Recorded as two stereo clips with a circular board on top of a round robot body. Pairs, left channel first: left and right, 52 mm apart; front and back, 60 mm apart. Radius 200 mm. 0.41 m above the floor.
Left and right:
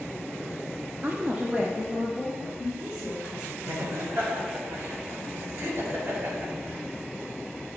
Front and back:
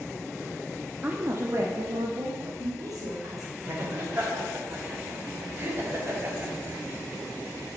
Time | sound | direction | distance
1.0 | a woman speaking | 125° right | 1.2 m
3.6 | laughter | 125° right | 3 m